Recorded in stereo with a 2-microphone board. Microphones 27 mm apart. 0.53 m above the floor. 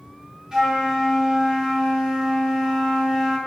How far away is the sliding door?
I don't hear a sliding door.